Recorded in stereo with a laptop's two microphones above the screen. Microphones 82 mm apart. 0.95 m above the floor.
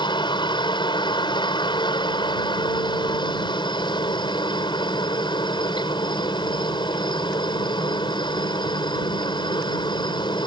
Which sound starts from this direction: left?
A helicopter, at 0.0 s.